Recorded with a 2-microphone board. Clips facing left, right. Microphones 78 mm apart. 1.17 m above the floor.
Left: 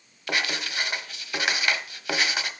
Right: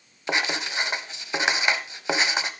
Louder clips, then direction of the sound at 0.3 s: Right 2 dB; 20° right (ahead or behind).